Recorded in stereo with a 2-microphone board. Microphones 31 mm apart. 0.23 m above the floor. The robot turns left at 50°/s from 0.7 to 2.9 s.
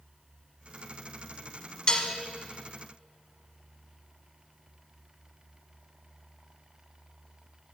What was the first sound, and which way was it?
Dishes clattering, 30° left (ahead or behind).